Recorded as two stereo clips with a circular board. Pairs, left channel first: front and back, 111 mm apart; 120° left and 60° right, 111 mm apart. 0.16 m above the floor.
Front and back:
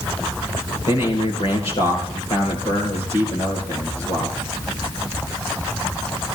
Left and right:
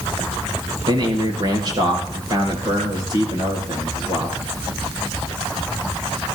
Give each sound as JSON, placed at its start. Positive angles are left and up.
{"t": 0.9, "sound": "a man speaking", "azimuth_deg": -15, "distance_m": 3.5}